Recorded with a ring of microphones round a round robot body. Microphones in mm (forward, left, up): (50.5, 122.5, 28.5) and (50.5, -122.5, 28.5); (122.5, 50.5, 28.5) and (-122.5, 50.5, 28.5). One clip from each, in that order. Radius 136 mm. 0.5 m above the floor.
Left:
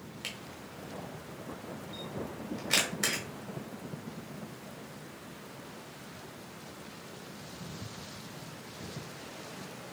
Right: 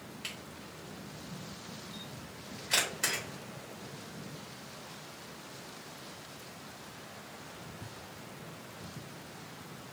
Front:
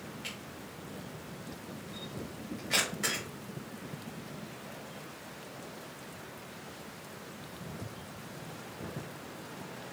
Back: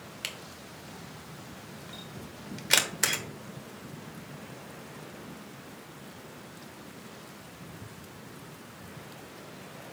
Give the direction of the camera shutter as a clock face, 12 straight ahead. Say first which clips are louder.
Left 2 dB, back 6 dB; 6 o'clock.